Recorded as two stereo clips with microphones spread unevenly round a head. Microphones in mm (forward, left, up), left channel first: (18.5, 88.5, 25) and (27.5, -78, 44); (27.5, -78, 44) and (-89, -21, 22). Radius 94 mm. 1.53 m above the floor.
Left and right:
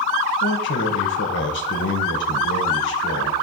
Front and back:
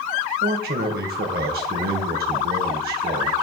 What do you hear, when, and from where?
0.4 s a man speaking: 120° left, 1.0 m